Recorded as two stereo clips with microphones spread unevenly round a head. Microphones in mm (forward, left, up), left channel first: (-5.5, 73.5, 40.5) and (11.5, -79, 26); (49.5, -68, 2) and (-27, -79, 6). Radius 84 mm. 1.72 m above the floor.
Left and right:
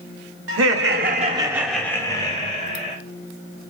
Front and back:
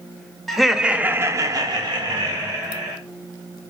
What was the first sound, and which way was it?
Laughter, 80° right.